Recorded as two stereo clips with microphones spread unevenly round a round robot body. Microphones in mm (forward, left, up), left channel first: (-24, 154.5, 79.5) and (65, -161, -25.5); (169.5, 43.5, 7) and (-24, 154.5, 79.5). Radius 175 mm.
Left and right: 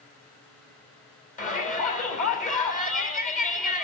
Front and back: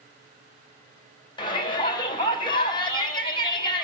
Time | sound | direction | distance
1.4 | a shout | 35° left | 4.5 m